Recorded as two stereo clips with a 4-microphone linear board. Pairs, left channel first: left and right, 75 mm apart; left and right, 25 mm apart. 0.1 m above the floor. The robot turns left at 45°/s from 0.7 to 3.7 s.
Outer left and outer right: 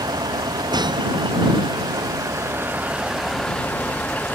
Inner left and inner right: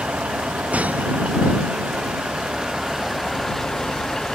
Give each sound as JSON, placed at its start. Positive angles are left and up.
{"t": 0.0, "sound": "a vehicle", "azimuth_deg": -65}